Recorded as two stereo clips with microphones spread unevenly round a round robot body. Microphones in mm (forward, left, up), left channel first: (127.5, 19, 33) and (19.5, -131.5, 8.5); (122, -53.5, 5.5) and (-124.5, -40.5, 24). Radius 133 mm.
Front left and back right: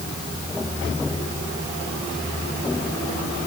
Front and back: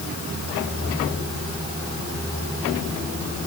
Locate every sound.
Only background noise.